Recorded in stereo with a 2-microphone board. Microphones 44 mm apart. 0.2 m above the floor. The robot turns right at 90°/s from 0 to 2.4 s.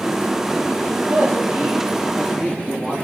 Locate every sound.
0.9 s a man speaking: 95° right, 4 m; by 2.9 s 40° left, 4 m